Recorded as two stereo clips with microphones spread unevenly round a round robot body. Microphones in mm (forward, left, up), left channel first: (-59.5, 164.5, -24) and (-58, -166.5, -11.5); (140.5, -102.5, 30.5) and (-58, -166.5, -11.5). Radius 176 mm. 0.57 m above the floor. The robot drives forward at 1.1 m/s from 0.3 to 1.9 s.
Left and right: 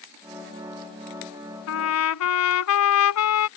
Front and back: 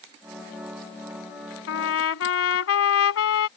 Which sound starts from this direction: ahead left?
A trumpet, at 1.7 s.